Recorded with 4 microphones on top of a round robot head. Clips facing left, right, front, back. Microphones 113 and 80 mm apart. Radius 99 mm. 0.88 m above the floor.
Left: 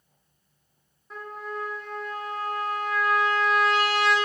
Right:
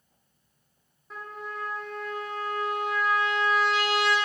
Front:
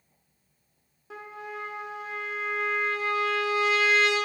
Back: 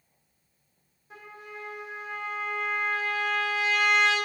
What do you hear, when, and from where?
1.1 s a trumpet: straight ahead, 1.2 m